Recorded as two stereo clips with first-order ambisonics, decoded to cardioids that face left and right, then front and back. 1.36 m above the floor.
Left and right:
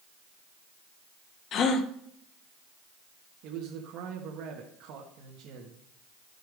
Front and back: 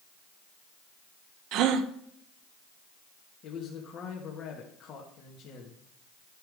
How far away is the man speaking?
About 1.6 m.